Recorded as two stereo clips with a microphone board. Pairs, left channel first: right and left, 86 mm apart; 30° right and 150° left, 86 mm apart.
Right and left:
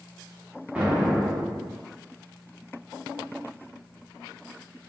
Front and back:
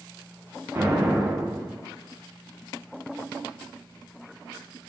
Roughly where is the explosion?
Behind left.